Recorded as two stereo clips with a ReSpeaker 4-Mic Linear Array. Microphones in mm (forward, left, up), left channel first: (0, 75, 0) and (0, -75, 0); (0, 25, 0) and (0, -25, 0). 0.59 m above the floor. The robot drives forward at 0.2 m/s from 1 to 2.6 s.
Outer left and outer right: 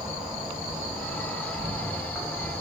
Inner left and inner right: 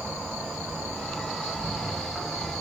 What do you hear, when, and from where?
0.0 s an insect: 5° right (ahead or behind), 1.1 m